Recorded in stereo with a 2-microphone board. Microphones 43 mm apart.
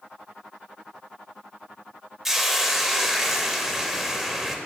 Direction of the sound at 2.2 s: 5° right (ahead or behind).